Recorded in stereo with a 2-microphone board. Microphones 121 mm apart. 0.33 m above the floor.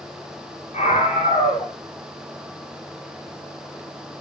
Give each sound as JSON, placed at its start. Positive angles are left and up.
{"t": 0.7, "sound": "a scream", "side_deg": 80, "distance_m": 9.5}